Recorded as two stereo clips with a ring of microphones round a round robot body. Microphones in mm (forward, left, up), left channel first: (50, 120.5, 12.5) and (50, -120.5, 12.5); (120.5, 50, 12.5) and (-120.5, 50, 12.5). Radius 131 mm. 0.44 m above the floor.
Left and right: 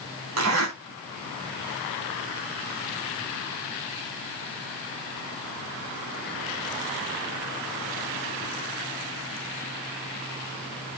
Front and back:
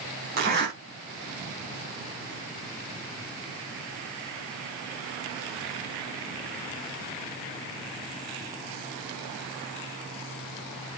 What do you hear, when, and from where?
0.3 s a zipper: 130° right, 4 m